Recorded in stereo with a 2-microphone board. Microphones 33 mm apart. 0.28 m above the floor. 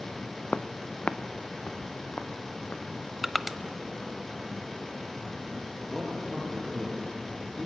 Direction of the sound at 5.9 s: 20° left (ahead or behind).